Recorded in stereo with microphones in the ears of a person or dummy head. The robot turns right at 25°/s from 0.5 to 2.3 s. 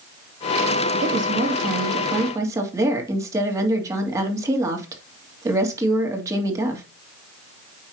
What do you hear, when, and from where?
1.0 s a woman speaking: 50° right, 2.5 m; by 6.8 s 20° right, 2.5 m